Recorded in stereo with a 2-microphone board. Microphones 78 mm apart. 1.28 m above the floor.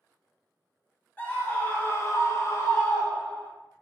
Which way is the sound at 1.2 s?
20° left (ahead or behind).